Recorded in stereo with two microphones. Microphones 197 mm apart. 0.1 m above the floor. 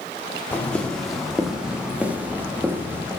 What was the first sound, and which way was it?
Footsteps, 10° left (ahead or behind).